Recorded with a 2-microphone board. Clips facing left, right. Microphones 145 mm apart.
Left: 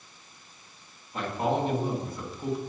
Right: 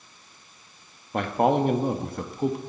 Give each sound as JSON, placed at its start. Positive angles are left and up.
{"t": 1.1, "sound": "a man speaking", "side_deg": -60, "distance_m": 1.3}